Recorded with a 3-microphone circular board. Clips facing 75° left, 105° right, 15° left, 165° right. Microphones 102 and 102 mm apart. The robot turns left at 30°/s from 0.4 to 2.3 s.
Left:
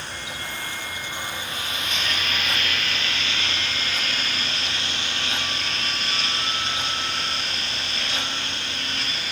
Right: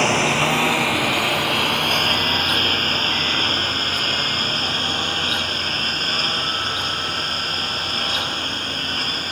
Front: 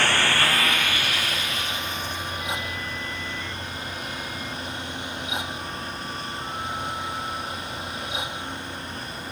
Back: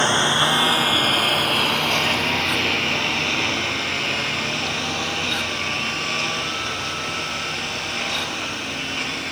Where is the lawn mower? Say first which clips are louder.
Right 17 dB, back 3 dB; 95° right; by 9.3 s 155° right.